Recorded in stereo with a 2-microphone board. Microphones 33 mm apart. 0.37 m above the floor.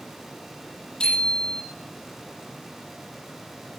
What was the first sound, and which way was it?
A bicycle bell, 30° left (ahead or behind).